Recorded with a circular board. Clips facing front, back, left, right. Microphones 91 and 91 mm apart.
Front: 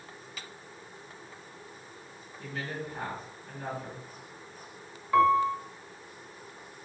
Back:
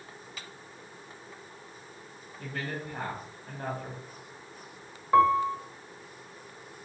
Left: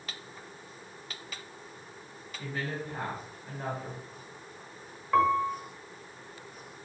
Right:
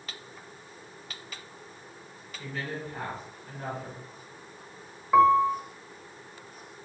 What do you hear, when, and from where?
2.4 s a woman speaking: 165° left, 3 m
5.1 s a piano: 155° right, 1.0 m